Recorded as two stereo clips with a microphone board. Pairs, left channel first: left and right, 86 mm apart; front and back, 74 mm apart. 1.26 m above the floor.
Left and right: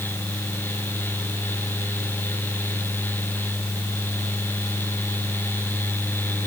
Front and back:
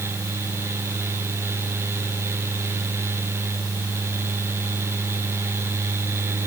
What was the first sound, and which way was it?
Only background noise.